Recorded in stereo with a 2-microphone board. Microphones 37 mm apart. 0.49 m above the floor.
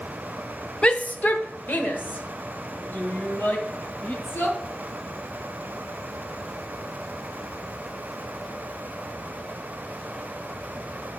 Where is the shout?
30° left (ahead or behind), 0.7 m; by 4.6 s 75° left (ahead or behind), 4 m.